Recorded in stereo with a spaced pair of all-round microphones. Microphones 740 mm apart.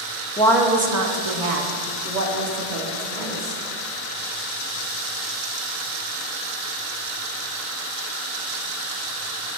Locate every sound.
0.4 s a woman speaking: 10° left (ahead or behind), 0.5 m; by 3.6 s 80° right, 1.7 m